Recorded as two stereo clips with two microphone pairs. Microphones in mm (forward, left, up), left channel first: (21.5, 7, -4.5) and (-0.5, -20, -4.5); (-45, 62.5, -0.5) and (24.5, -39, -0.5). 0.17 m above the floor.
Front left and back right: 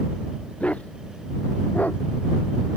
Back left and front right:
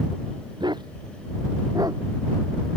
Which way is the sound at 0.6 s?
Straight ahead.